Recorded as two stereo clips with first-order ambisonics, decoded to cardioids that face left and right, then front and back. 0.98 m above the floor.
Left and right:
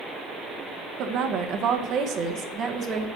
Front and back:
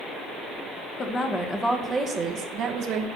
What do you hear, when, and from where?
1.0 s a woman speaking: 60° right, 1.0 m; by 3.1 s 160° right, 1.0 m